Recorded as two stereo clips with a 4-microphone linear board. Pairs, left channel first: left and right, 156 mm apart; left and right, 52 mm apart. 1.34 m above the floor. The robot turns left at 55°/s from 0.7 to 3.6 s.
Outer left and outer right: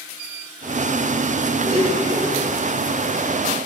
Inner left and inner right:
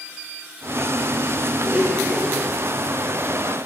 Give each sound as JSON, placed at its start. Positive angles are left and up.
{"t": 1.6, "sound": "a blender", "azimuth_deg": -125, "distance_m": 2.0}